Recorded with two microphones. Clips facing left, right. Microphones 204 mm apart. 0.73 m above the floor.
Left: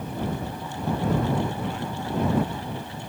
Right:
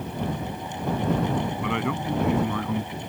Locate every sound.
1.6 s a man speaking: 80° right; by 3.1 s 85° right